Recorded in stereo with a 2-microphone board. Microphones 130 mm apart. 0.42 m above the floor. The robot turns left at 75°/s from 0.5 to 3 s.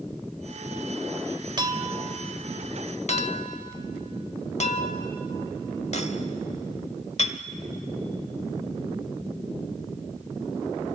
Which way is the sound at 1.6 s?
35° right (ahead or behind).